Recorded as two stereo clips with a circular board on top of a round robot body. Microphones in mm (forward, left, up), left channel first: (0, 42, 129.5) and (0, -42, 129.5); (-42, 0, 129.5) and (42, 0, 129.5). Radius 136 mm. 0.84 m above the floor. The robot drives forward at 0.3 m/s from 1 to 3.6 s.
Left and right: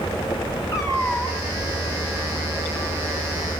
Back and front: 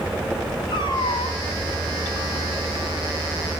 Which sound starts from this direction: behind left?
A cat meowing, at 0.7 s.